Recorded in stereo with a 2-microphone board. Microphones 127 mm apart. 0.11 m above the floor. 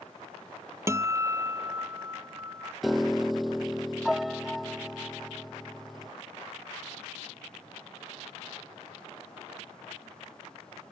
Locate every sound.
0.9 s a guitar: 25° right (ahead or behind)
2.8 s a piano: centre (ahead or behind)